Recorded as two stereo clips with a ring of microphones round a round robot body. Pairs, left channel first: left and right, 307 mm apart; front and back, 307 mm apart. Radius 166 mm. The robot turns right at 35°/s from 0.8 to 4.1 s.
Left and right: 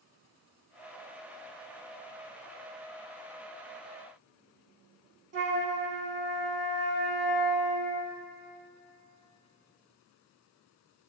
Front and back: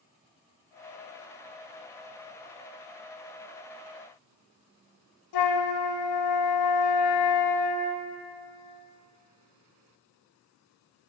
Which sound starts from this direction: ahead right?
A flute, at 5.3 s.